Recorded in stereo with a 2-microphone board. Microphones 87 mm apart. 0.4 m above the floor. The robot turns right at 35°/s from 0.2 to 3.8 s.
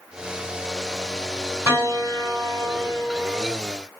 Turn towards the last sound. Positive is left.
turn(degrees=-55)